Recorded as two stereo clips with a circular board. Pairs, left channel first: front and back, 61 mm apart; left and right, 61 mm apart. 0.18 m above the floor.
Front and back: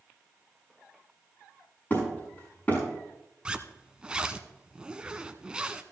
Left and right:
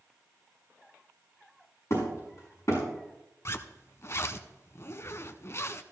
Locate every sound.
1.9 s hammering: 60° left, 7 m
3.5 s a zipper: 110° left, 0.6 m